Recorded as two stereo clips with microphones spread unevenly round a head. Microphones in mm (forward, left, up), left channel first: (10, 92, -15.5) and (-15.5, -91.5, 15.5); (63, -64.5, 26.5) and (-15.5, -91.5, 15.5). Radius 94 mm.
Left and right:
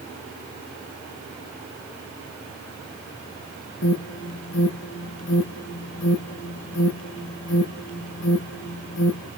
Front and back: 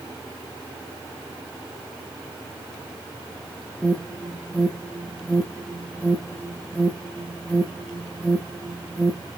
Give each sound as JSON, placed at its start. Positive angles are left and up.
{"t": 3.8, "sound": "an alarm", "azimuth_deg": 90, "distance_m": 1.2}